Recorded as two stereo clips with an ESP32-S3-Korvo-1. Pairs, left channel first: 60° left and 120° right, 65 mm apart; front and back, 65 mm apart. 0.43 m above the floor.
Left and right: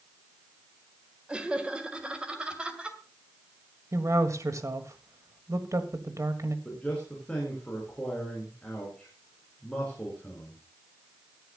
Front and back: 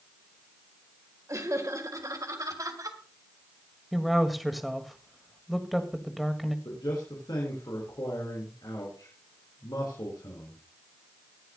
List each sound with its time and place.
1.3 s laughter: 170° left, 1.7 m; by 3.0 s 165° left, 2.5 m
3.9 s a woman speaking: 90° right, 1.7 m
6.7 s a man speaking: 15° right, 4 m